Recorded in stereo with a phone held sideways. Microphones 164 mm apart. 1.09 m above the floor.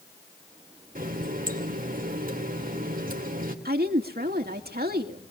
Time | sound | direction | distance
0.9 | a running tap | 60° right (ahead or behind) | 2.5 m
3.6 | a woman speaking | 75° right (ahead or behind) | 2 m